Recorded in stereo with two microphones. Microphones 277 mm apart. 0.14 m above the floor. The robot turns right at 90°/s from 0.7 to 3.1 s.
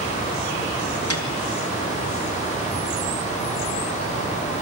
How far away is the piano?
About 2 m.